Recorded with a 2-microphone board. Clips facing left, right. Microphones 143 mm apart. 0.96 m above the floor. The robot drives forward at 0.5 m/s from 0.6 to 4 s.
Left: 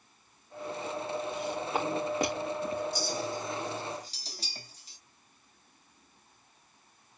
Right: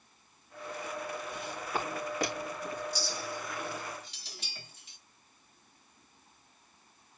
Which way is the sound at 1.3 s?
20° left (ahead or behind).